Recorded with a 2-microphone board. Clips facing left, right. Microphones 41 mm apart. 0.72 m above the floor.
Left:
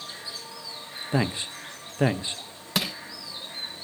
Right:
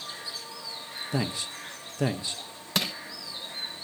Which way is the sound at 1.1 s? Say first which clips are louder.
Left 4 dB; 30° left (ahead or behind).